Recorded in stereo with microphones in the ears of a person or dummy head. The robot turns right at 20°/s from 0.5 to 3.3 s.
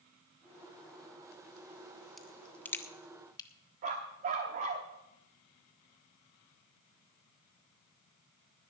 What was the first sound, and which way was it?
A crack, centre (ahead or behind).